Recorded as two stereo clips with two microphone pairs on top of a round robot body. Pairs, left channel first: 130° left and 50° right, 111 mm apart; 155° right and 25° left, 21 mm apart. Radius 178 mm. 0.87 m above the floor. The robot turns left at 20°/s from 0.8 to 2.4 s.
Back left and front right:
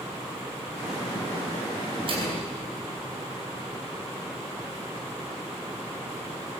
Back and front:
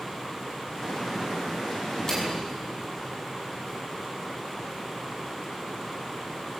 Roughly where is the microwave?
Right.